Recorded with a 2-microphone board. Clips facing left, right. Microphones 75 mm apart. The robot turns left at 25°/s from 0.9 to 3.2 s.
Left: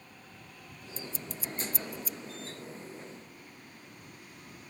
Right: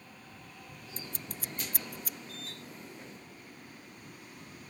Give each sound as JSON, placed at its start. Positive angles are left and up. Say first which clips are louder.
{"t": 1.0, "sound": "scissors", "louder": "left 3 dB", "side_deg": -50}